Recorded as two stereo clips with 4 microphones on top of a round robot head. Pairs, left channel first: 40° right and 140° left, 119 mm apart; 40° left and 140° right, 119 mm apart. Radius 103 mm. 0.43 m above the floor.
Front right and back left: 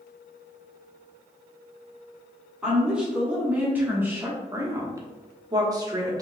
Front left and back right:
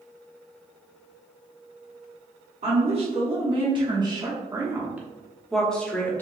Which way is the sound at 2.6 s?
135° right.